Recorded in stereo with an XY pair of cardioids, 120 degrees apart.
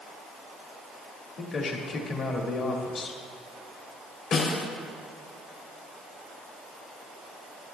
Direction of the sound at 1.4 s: 50° left.